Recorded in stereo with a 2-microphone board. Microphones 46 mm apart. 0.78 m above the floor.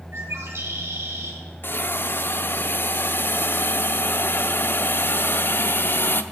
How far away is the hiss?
About 0.6 m.